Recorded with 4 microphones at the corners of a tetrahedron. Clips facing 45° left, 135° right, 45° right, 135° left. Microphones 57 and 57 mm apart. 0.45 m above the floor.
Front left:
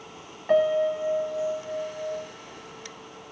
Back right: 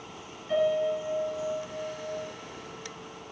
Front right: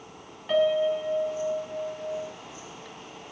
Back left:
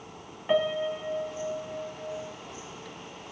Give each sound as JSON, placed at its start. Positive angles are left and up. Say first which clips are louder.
{"t": 0.5, "sound": "a piano", "louder": "front left 4 dB, front right 4 dB", "azimuth_deg": 65, "distance_m": 0.6}